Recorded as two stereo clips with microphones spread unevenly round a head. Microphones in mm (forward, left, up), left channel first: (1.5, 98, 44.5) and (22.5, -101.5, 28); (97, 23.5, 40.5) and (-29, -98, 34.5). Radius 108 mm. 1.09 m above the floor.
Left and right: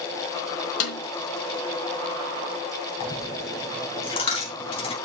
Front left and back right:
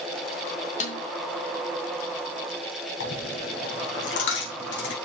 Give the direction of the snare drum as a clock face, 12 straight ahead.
9 o'clock.